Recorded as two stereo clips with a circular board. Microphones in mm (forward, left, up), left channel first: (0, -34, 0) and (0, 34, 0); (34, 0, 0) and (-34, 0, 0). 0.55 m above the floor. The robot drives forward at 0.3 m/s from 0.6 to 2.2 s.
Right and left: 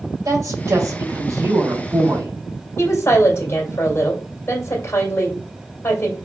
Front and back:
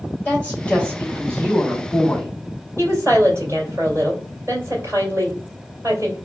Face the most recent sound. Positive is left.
turn(degrees=-135)